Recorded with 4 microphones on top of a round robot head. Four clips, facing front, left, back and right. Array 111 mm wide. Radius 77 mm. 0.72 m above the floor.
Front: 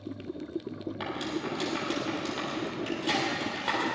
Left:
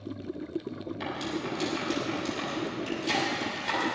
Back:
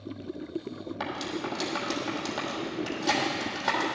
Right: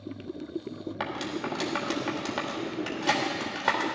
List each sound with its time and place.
1.0 s cutlery clinking: 105° right, 1.4 m